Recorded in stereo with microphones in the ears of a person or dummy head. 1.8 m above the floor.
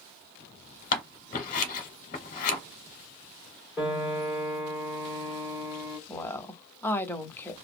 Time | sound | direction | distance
0.9 | scissors | 45° left (ahead or behind) | 0.8 m
3.8 | a piano | centre (ahead or behind) | 1.2 m
6.1 | a woman speaking | 15° left (ahead or behind) | 0.7 m